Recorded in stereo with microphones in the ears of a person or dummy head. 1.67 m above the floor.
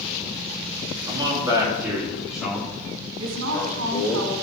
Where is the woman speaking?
85° right, 4.5 m.